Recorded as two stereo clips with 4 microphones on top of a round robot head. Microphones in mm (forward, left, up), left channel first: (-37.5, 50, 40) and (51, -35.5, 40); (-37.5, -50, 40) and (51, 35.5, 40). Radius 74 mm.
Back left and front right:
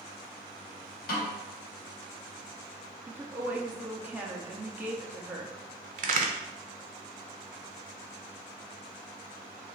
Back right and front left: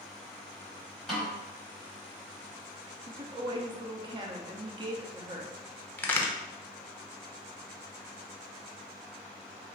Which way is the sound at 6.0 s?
60° right.